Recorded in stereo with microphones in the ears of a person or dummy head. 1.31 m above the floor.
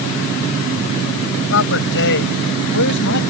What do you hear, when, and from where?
1.5 s a man speaking: 60° left (ahead or behind); by 3.2 s 55° left (ahead or behind)